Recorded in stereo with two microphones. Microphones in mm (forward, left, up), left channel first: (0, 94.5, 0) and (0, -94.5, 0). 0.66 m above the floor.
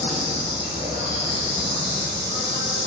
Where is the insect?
35° left (ahead or behind), 1.3 m.